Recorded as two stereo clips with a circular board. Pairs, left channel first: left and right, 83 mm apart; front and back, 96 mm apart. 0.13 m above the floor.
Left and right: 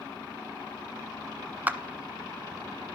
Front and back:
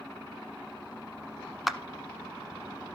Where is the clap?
90° right, 1.0 m.